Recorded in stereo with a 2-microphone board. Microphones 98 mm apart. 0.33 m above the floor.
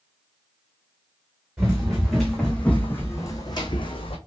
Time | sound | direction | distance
1.6 | running footsteps | 5° right (ahead or behind) | 1.7 m